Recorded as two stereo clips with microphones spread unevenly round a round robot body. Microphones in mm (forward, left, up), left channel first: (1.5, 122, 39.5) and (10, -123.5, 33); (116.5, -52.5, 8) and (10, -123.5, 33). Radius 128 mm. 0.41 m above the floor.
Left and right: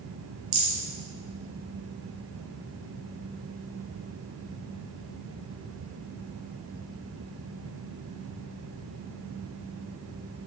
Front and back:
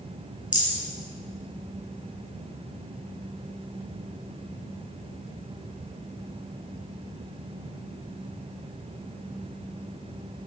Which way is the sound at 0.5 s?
70° right.